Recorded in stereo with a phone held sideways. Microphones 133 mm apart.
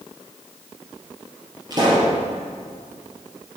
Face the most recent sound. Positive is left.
turn(degrees=-30)  # may be behind; listen again after turning